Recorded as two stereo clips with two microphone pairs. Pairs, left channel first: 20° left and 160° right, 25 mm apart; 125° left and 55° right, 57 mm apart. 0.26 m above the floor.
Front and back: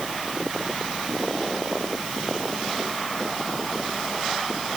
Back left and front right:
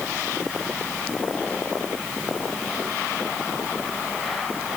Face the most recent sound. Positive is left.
No sound to turn to.